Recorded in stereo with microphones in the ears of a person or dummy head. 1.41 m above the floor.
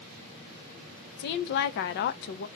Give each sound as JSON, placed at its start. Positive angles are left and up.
{"t": 1.2, "sound": "a woman speaking", "side_deg": 55, "distance_m": 0.6}